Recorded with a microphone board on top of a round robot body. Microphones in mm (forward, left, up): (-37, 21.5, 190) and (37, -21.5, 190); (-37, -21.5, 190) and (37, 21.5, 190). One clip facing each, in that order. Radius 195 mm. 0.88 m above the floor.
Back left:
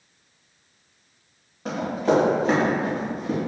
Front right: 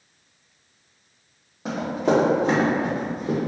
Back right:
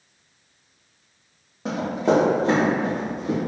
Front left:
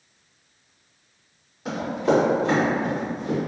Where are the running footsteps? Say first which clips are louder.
Even, back right 1 dB; 105° right, 1.7 m; by 3.4 s 65° right, 1.3 m.